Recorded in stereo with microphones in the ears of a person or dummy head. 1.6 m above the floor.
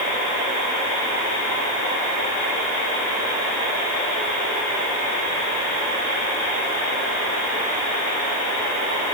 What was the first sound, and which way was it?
Only background noise.